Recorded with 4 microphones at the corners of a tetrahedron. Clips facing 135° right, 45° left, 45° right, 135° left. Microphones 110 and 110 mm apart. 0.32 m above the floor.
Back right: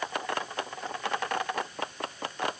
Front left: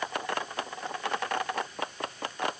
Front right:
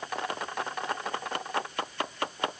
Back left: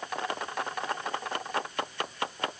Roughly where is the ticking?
I don't hear ticking.